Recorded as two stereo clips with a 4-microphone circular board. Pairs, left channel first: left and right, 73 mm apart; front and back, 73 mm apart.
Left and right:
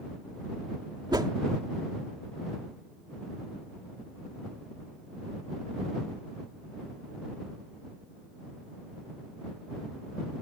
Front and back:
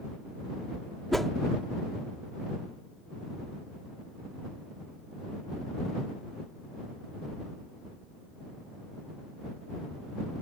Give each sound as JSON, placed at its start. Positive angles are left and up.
{"t": 1.1, "sound": "a whoosh", "azimuth_deg": -85}